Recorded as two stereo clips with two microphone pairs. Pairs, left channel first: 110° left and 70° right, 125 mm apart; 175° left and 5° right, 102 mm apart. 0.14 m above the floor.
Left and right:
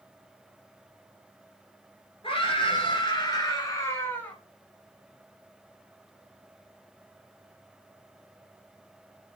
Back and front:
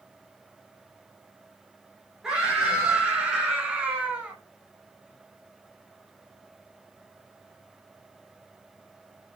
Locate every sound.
2.2 s a scream: 80° left, 2 m; by 4.4 s 50° left, 1.3 m